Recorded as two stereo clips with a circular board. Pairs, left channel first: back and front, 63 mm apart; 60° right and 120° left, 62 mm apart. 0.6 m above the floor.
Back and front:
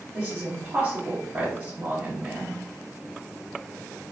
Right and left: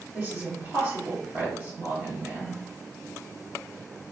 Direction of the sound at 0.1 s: 70° left.